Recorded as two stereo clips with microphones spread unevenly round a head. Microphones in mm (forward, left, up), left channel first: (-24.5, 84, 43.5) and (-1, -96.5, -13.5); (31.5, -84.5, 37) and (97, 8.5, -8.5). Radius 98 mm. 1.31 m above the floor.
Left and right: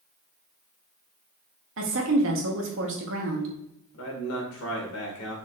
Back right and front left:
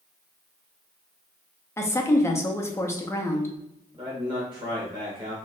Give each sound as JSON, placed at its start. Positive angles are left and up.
{"t": 1.8, "sound": "a woman speaking", "azimuth_deg": -60, "distance_m": 0.9}
{"t": 3.9, "sound": "a man speaking", "azimuth_deg": 110, "distance_m": 1.3}